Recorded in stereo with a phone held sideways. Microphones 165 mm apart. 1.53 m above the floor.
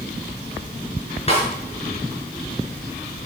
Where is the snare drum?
35° left (ahead or behind), 4.5 m.